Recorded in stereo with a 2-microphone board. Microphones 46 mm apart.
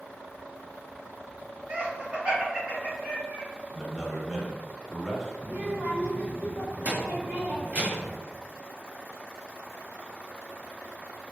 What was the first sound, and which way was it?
Laughter, 25° right (ahead or behind).